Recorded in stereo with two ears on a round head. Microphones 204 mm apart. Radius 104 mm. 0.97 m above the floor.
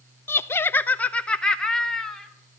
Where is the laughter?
10° left (ahead or behind), 0.5 m; by 2.3 s centre (ahead or behind), 1.7 m.